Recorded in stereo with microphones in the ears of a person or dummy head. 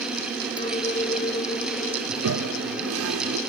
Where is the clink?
25° left (ahead or behind).